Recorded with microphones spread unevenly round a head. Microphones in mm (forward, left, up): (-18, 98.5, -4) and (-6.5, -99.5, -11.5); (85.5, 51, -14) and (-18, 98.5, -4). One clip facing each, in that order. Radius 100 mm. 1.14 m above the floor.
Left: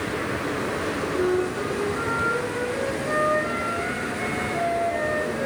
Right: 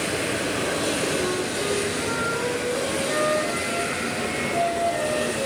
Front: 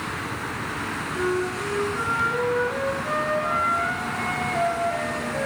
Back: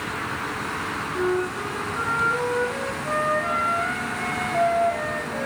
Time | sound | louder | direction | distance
1.1 | a flute | left 3 dB, back 1 dB | 95° left | 3 m